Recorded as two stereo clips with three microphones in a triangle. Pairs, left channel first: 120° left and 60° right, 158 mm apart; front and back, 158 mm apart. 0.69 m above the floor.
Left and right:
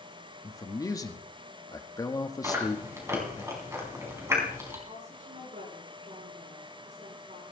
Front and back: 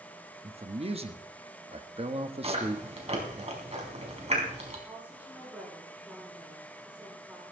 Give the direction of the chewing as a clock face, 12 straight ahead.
4 o'clock.